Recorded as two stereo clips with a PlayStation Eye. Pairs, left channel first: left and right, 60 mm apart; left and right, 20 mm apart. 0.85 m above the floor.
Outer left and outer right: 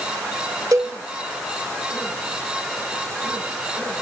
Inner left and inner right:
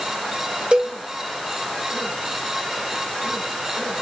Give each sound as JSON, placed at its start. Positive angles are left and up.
{"t": 0.7, "sound": "a cowbell", "side_deg": -90, "distance_m": 2.0}